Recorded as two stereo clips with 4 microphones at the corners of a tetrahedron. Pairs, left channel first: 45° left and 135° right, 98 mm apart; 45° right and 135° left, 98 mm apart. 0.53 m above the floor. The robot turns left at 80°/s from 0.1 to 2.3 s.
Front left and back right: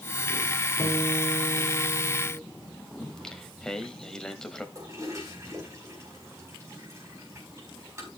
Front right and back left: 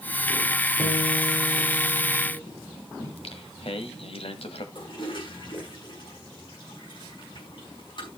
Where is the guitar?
95° left, 4.5 m; by 2.4 s 25° right, 4.5 m.